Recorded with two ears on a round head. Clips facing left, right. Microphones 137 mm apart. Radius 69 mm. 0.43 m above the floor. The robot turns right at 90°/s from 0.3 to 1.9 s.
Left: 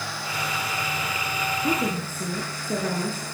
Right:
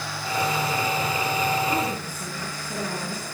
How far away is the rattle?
No rattle in this recording.